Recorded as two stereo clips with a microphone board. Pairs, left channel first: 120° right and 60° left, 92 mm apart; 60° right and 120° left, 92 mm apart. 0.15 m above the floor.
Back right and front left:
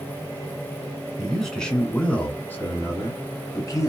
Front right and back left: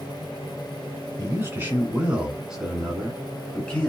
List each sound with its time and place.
1.2 s a man speaking: 150° left, 1.8 m; by 3.9 s 125° right, 1.9 m